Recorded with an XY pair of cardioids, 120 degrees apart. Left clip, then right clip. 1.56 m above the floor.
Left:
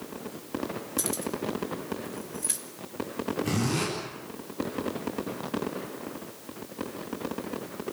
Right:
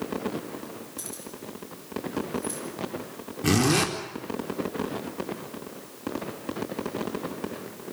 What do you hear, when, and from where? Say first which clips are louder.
1.0 s keys jangling: left 8 dB; 50° left, 3 m
3.4 s a zipper: right 10 dB; 60° right, 4 m